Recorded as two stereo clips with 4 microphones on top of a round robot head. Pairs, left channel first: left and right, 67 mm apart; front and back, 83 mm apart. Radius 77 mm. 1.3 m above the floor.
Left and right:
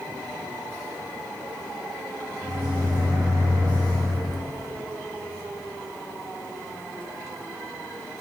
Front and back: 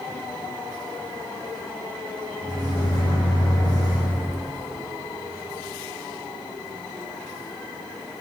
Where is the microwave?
50° right, 1.4 m.